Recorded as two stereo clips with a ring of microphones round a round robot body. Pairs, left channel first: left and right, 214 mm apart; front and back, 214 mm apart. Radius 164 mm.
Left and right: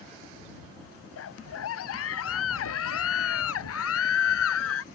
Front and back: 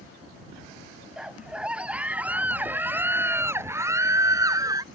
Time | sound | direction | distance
1.2 | a scream | 95° left | ?